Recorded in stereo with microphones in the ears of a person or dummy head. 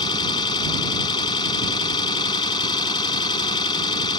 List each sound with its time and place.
0.0 s an engine running: 35° left (ahead or behind)